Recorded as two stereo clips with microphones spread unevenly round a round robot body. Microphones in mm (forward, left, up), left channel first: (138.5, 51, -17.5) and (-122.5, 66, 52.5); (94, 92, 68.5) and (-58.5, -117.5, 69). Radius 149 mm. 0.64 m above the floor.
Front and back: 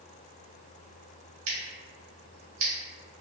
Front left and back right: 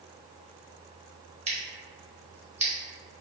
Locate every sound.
1.5 s scissors: 170° right, 1.0 m